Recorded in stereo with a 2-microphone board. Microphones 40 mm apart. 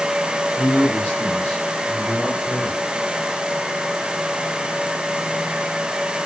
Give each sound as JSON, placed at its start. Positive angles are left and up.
{"t": 0.6, "sound": "a man speaking", "side_deg": 30, "distance_m": 10.0}